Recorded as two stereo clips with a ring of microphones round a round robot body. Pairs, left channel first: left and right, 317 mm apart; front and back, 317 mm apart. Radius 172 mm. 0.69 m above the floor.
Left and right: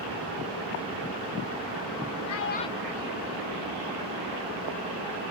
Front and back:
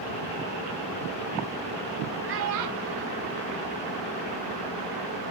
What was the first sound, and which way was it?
A child speaking, 125° left.